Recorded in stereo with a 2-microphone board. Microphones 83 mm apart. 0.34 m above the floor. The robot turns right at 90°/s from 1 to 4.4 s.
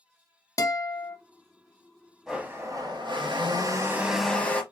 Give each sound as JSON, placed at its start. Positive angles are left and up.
{"t": 0.6, "sound": "a guitar", "side_deg": 45, "distance_m": 0.6}
{"t": 2.3, "sound": "a blender", "azimuth_deg": -175, "distance_m": 1.0}